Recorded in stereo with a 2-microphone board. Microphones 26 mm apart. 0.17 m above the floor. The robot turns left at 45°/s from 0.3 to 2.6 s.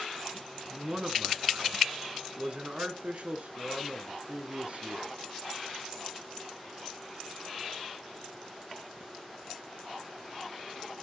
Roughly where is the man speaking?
Ahead right.